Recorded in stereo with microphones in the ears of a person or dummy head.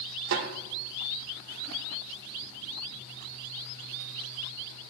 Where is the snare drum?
55° right (ahead or behind), 1.5 m.